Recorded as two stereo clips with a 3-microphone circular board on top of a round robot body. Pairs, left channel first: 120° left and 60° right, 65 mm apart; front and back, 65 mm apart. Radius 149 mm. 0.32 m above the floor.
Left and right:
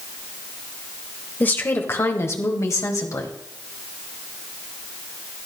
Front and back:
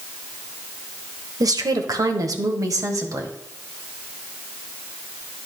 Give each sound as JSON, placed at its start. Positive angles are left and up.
{"t": 1.4, "sound": "a woman speaking", "azimuth_deg": 180, "distance_m": 1.7}